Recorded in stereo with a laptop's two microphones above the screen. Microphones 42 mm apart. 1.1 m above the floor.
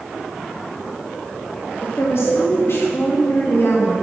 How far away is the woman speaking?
About 1.8 m.